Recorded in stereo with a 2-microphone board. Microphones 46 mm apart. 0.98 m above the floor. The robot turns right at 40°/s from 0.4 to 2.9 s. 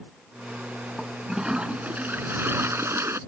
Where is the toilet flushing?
Straight behind; by 3.2 s 100° right.